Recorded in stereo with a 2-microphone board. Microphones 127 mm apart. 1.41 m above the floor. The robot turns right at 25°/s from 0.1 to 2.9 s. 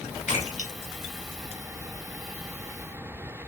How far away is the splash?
About 1.6 m.